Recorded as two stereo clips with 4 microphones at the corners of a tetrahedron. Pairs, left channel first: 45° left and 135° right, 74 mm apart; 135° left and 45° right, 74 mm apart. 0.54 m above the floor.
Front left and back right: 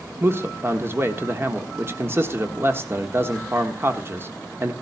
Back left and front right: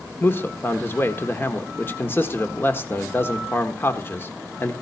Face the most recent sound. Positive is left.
turn(degrees=180)